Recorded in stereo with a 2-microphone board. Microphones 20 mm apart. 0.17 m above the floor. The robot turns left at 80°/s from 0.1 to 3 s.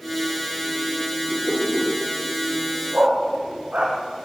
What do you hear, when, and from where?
1.3 s a whoosh: 15° left, 9 m; by 1.9 s 35° right, 9 m
2.9 s a dog barking: 85° right, 4.5 m